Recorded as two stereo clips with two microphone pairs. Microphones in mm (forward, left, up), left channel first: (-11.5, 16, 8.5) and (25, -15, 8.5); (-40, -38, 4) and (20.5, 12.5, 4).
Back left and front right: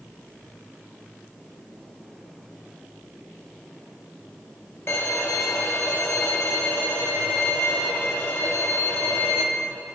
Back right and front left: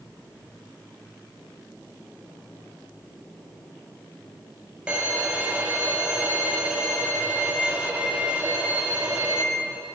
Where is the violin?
115° left, 0.8 m.